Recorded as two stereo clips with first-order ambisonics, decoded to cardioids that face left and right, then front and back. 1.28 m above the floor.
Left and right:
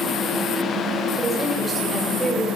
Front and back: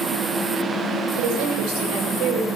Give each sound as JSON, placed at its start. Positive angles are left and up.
{"t": 1.2, "sound": "a woman speaking", "azimuth_deg": -175, "distance_m": 5.5}